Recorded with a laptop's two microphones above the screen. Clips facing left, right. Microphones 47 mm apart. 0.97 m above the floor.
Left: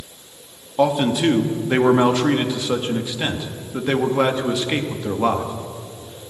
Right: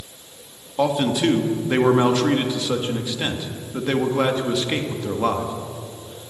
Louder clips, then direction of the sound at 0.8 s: Left 2 dB; 10° left (ahead or behind).